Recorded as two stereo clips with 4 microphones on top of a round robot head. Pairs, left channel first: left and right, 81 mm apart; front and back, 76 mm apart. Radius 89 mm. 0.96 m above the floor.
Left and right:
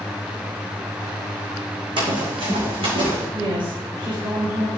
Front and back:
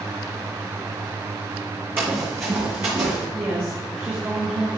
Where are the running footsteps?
110° right, 2.5 m; by 3.2 s 115° right, 4 m.